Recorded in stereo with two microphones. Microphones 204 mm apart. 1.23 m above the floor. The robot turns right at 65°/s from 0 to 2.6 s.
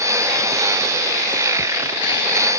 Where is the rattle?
No rattle in this recording.